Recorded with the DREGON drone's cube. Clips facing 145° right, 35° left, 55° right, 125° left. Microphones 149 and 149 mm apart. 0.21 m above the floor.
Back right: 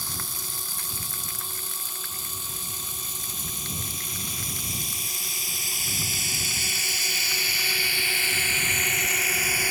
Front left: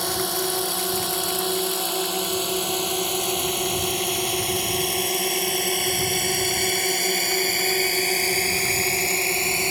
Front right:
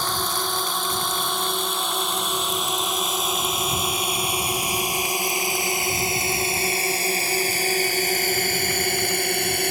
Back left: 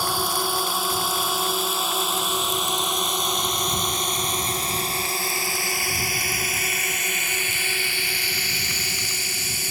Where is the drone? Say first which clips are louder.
Front left 16 dB, back left 2 dB; 45° left; by 9.7 s 30° right.